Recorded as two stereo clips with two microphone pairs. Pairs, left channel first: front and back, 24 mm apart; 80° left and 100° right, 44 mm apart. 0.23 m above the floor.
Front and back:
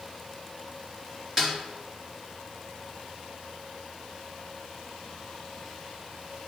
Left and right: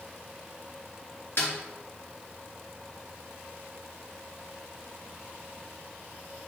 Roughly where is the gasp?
I don't hear a gasp.